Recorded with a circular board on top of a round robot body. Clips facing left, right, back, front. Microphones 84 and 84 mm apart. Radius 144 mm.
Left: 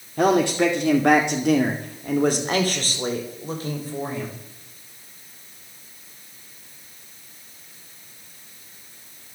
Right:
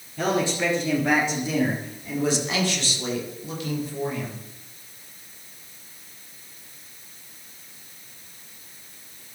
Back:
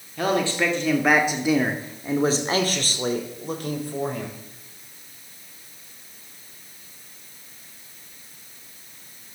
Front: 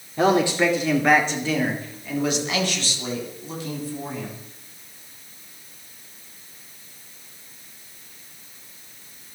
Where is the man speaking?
65° left, 2.5 m; by 4.4 s 150° left, 4.5 m.